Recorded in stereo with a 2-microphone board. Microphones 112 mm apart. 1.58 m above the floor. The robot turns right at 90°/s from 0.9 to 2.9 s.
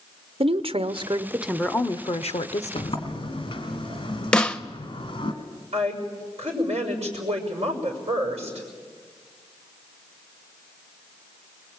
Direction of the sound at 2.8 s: 50° left (ahead or behind).